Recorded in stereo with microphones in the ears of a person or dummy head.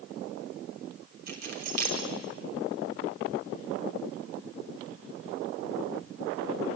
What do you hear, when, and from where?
1.3 s keys jangling: 55° right (ahead or behind), 4 m